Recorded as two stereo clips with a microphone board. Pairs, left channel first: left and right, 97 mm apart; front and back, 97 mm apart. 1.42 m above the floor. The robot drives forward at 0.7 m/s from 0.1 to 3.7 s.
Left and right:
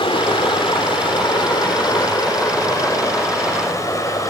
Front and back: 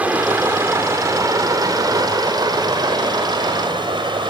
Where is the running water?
105° left, 2.5 m; by 4.3 s 145° left, 4 m.